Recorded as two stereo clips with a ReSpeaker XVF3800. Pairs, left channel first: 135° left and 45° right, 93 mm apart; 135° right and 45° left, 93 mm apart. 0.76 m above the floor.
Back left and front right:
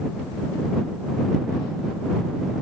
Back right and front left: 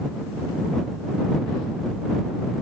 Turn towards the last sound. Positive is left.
No sound to turn to.